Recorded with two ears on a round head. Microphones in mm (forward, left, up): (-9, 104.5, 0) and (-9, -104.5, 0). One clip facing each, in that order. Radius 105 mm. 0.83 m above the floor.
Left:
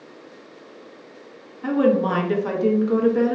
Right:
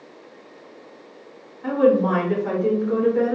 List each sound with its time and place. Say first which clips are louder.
1.6 s a woman speaking: right 1 dB; 55° left (ahead or behind), 0.8 m